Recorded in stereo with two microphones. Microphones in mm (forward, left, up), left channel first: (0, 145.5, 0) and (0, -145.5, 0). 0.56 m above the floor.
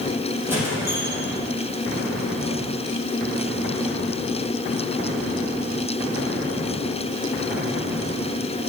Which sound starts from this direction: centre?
A squeak, at 0.5 s.